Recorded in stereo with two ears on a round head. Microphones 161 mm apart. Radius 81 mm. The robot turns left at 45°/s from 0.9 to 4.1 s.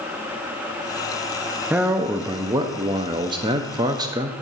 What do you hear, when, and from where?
1.7 s a man speaking: 10° right (ahead or behind), 0.5 m; by 4.3 s 20° right (ahead or behind), 0.5 m